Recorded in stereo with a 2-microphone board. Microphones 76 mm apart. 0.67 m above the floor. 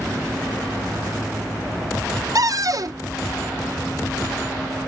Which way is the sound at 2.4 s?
50° right (ahead or behind).